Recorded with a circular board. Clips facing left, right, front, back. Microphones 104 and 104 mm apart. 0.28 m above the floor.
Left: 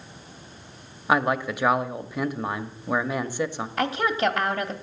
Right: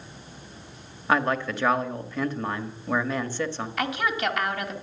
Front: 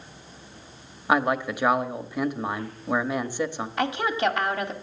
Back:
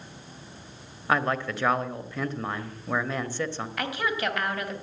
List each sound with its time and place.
1.1 s a man speaking: 40° left, 1.0 m
3.8 s a woman speaking: 50° left, 1.4 m